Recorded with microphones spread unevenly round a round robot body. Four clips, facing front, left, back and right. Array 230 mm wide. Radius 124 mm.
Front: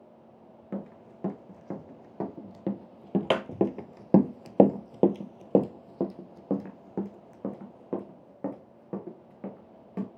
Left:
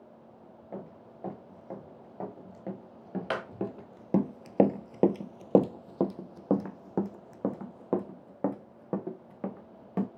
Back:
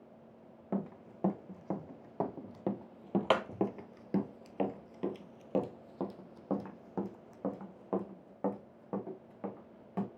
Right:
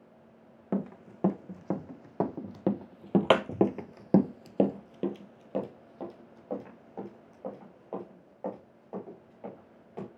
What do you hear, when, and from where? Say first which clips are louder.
0.7 s running footsteps: right 9 dB, even; 80° right, 2 m; by 10.1 s 80° left, 3 m